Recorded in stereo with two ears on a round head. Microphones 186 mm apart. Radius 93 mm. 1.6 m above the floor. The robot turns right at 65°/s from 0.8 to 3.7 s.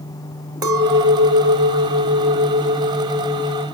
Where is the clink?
160° right, 2.0 m; by 3.6 s 25° left, 2.0 m.